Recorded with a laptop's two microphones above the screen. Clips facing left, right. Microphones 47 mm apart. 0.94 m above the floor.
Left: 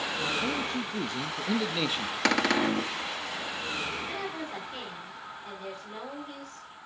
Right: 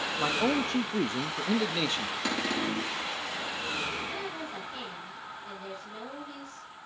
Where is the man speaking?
70° right (ahead or behind), 0.9 m; by 2.1 s 10° left (ahead or behind), 1.2 m.